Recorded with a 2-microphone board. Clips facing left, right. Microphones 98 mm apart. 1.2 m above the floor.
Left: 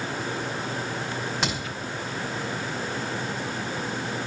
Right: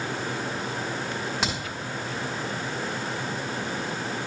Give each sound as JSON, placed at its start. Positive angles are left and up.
{"t": 1.4, "sound": "a crack", "side_deg": 0, "distance_m": 5.0}